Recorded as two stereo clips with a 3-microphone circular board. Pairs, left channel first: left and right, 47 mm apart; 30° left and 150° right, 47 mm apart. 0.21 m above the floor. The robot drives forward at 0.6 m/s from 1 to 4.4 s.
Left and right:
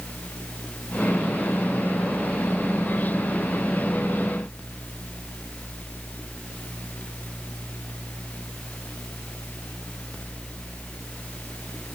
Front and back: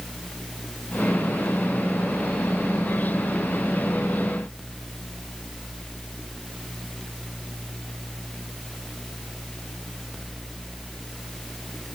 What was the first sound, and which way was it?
Only background noise.